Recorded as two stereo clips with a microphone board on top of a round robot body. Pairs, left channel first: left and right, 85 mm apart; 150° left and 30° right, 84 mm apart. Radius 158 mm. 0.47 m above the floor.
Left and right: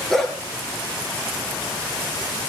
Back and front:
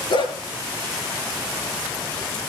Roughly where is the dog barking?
Behind.